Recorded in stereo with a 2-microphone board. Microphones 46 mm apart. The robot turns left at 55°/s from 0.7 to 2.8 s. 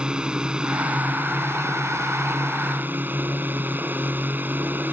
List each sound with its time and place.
0.0 s a drone: 20° right; by 4.9 s 135° right